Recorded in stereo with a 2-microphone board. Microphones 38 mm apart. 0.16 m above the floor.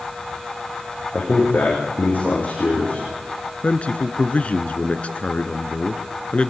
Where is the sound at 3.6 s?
35° left (ahead or behind), 1.9 m.